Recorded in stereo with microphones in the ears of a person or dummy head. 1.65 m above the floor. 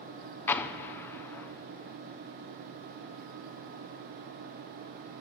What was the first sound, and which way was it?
An explosion, 10° left (ahead or behind).